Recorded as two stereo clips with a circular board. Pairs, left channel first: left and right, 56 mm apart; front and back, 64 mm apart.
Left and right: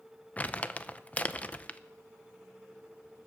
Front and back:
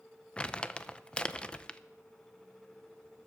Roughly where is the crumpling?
Ahead left.